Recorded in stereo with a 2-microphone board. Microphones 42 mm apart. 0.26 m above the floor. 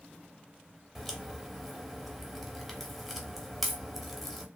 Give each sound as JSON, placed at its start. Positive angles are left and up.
{"t": 0.9, "sound": "a crack", "side_deg": 0, "distance_m": 0.6}